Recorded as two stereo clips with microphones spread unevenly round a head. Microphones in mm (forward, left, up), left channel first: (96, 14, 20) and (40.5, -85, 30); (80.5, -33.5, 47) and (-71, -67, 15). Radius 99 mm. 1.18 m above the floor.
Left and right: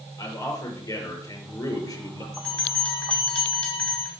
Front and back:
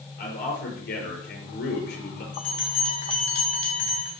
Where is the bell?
20° right, 4 m.